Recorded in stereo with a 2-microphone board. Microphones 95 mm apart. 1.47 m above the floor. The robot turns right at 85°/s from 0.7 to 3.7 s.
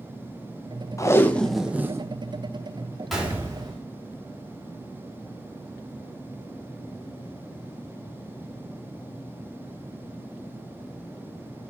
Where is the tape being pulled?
130° left, 0.7 m; by 2.1 s 135° right, 0.7 m.